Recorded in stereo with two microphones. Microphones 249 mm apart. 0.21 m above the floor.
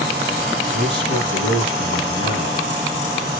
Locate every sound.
0.7 s a man speaking: 20° left (ahead or behind), 1.3 m